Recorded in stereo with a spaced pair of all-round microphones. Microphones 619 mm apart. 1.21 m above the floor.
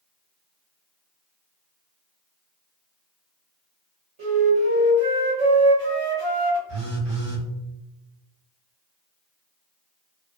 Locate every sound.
4.2 s a flute: 50° right (ahead or behind), 1.4 m
6.7 s a phone buzzing: 55° right (ahead or behind), 1.6 m